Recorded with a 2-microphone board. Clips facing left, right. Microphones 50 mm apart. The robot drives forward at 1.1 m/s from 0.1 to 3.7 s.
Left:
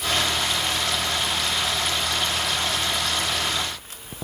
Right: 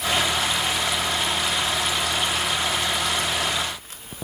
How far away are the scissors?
I don't hear scissors.